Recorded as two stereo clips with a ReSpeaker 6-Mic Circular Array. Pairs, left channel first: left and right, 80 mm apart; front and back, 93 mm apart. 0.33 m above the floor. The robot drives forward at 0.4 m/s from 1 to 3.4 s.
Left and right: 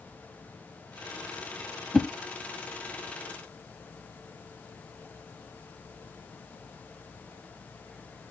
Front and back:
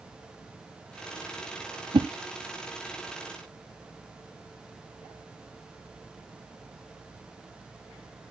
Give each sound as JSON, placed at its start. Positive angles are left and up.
{"t": 1.9, "sound": "a whoosh", "azimuth_deg": 175, "distance_m": 0.8}